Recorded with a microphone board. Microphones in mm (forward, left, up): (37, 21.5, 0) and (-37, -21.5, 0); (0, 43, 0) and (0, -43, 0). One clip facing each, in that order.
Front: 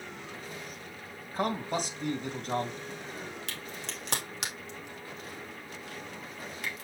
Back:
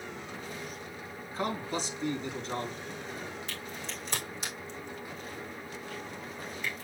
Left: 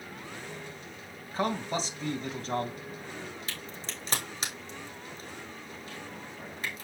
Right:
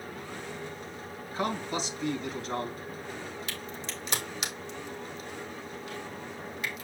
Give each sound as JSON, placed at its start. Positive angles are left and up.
{"t": 1.3, "sound": "a man speaking", "azimuth_deg": 45, "distance_m": 2.5}
{"t": 3.5, "sound": "a crack", "azimuth_deg": 35, "distance_m": 3.5}